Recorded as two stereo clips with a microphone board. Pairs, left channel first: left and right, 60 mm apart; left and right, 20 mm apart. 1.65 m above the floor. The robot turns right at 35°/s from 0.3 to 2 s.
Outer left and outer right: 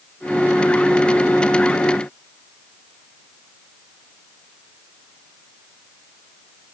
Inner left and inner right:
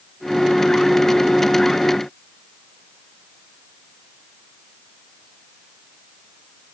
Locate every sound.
Only background noise.